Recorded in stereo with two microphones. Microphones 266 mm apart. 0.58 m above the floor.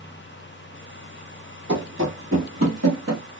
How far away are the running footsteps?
About 1.4 m.